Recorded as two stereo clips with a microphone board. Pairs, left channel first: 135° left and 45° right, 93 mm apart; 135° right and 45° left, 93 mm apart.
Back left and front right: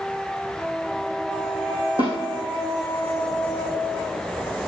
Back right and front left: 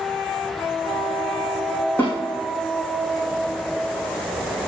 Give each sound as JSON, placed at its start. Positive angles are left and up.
{"t": 2.0, "sound": "a snare drum", "azimuth_deg": -60, "distance_m": 5.0}